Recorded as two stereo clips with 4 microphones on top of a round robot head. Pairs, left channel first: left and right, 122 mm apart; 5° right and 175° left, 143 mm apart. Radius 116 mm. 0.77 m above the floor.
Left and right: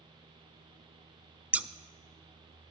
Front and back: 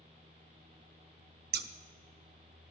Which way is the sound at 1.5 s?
170° right.